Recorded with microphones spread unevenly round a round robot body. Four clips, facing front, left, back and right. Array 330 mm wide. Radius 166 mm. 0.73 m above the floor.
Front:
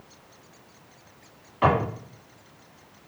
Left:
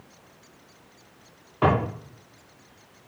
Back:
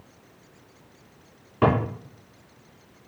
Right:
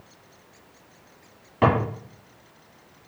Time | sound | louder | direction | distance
1.6 | a drawer | right 1 dB, even | 130° right | 2.5 m